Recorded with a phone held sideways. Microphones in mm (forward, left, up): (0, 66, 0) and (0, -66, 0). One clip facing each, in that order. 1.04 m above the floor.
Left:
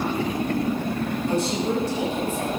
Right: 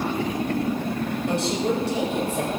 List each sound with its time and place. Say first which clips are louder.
1.3 s a woman speaking: even; 65° right (ahead or behind), 5.5 m